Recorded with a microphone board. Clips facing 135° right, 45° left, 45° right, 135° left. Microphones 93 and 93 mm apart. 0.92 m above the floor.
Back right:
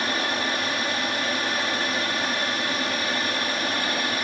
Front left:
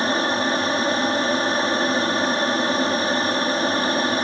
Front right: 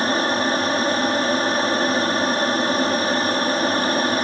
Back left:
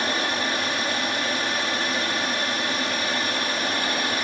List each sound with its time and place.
0.0 s an aircraft: 5° right